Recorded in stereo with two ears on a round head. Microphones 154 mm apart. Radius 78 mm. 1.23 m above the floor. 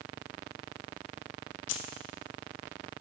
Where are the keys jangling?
75° left (ahead or behind), 0.9 m.